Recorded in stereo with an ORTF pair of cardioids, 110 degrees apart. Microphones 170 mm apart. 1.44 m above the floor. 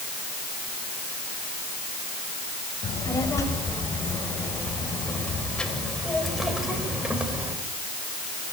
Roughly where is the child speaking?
Ahead.